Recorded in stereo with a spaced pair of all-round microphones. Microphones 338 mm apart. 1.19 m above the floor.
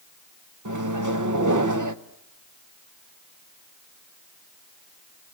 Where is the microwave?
60° right (ahead or behind), 1.0 m.